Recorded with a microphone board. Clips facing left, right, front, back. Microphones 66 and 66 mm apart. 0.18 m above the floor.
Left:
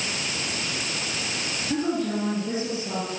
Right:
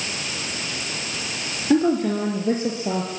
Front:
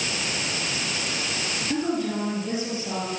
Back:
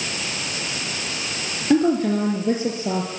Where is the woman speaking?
130° right, 4 m.